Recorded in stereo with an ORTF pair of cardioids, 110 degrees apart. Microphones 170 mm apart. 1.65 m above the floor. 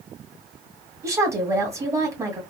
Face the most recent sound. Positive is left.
turn(degrees=-15)